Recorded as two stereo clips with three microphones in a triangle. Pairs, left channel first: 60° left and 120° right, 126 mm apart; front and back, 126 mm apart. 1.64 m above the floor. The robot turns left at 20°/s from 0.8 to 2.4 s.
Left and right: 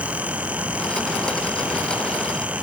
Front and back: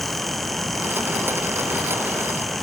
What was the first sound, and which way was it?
Only background noise.